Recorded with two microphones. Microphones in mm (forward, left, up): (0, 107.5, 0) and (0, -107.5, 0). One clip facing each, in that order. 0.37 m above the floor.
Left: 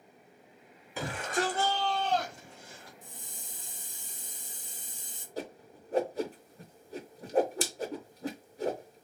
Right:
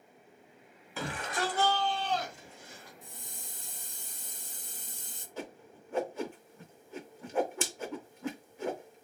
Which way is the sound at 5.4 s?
35° left (ahead or behind).